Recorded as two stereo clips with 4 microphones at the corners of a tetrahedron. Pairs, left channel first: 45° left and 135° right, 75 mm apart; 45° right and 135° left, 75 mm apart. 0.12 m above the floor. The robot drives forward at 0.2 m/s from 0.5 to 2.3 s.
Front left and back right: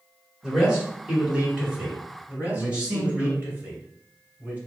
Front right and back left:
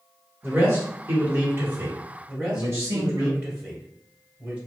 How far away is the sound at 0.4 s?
About 1.8 m.